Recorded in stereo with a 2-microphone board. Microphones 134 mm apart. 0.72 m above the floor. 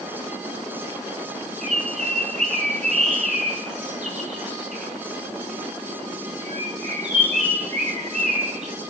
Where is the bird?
60° right (ahead or behind), 4 m.